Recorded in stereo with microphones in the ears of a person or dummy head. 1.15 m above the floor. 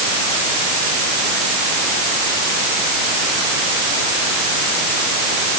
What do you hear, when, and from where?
Only background noise.